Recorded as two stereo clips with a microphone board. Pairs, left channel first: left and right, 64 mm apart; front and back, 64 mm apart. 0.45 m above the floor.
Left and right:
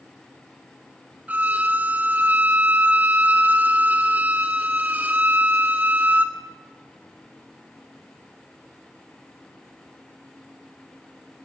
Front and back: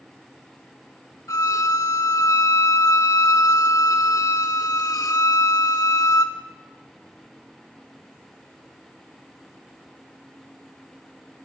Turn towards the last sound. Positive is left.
turn(degrees=-25)